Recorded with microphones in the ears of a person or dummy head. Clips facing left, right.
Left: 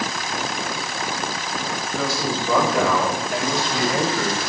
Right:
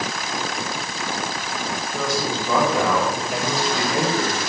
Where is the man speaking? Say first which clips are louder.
Even; 5° left (ahead or behind), 9.5 m; by 4.4 s 5° right (ahead or behind), 6 m.